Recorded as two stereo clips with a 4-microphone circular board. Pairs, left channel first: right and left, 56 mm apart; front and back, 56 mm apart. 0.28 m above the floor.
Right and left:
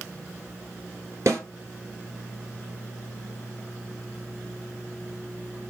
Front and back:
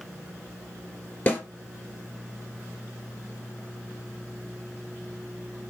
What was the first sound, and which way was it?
A snare drum, 60° left.